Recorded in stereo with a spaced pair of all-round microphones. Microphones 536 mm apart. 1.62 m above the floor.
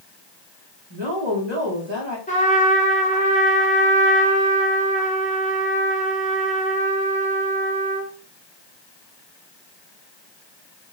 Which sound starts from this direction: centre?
A trumpet, at 2.3 s.